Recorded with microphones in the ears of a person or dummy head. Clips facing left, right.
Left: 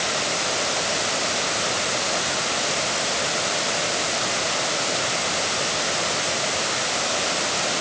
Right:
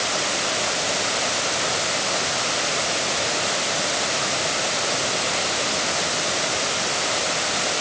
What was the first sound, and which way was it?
Only background noise.